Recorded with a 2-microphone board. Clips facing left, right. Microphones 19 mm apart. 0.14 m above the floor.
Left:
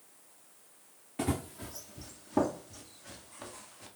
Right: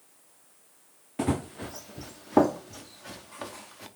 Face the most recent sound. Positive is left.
turn(degrees=-70)  # may be behind; listen again after turning